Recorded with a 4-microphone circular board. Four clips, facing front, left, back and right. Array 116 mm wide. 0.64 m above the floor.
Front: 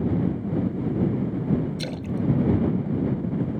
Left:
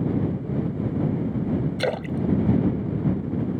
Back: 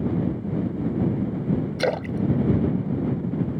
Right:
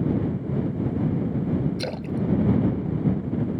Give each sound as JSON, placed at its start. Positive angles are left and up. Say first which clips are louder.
{"t": 1.8, "sound": "a splash", "louder": "left 3 dB, back 4 dB", "azimuth_deg": 155}